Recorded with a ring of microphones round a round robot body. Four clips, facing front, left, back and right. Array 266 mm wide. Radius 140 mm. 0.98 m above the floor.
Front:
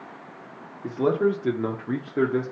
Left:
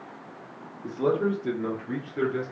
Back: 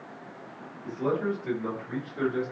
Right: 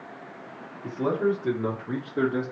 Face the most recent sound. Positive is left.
turn(degrees=-25)